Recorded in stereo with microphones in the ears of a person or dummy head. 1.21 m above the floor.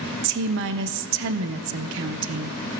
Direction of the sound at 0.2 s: 65° right (ahead or behind).